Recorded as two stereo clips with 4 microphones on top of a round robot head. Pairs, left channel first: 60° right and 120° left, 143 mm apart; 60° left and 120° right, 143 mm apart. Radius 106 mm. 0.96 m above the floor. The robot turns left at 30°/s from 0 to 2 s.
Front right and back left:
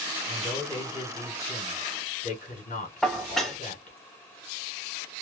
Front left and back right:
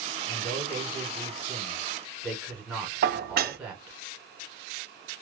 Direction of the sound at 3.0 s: 145° right.